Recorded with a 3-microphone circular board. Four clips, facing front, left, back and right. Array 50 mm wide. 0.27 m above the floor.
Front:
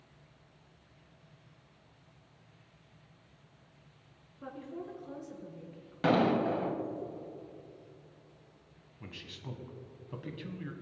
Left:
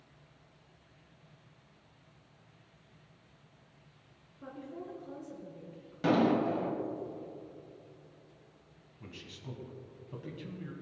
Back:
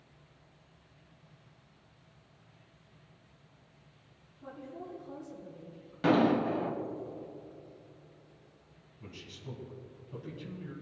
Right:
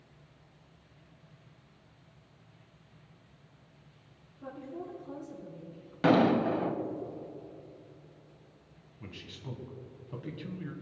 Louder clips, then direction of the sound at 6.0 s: Right 3 dB, back 1 dB; 70° right.